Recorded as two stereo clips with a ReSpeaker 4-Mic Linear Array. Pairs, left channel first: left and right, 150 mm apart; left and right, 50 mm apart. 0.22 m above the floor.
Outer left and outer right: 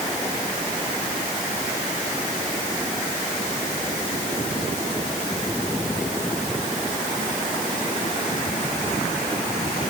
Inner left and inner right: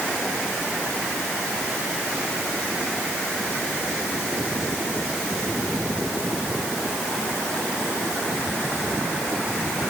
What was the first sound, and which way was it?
Only background noise.